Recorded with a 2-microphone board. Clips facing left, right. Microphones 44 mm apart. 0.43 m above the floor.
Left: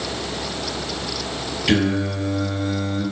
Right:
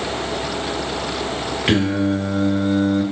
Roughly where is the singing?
Right.